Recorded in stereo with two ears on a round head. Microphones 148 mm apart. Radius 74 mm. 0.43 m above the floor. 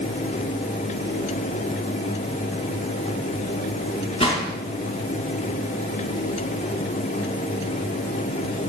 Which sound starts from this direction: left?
A gunshot, at 4.2 s.